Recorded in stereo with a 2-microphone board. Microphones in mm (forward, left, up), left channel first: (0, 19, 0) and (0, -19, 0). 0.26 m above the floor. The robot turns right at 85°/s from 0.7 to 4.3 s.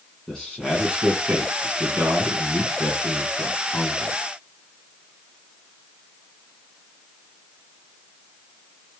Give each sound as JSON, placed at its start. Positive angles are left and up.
{"t": 0.3, "sound": "a man speaking", "azimuth_deg": 165, "distance_m": 2.5}